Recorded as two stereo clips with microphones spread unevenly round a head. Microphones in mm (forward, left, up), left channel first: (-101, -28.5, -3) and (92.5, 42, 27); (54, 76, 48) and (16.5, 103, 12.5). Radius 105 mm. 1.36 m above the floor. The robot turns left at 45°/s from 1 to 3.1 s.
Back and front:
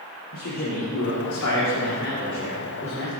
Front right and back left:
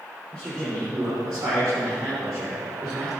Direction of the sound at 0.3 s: 150° right.